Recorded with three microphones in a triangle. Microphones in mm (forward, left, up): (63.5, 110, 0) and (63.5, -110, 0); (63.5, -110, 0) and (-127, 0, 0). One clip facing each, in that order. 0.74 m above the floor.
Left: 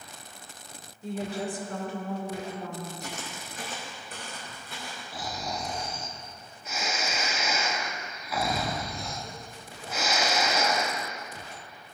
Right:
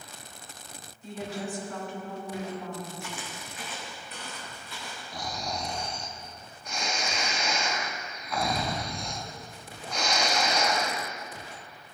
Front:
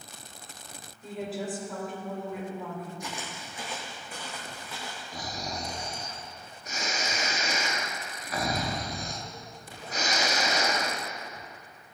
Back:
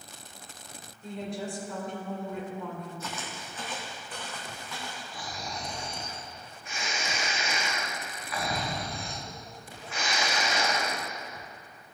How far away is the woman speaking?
About 2.5 m.